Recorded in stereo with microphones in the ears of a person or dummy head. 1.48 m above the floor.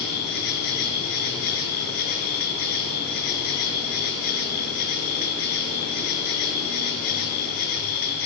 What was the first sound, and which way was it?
An insect, 50° left (ahead or behind).